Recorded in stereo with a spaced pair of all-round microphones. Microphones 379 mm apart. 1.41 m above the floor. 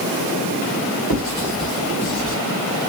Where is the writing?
70° left (ahead or behind), 2.5 m.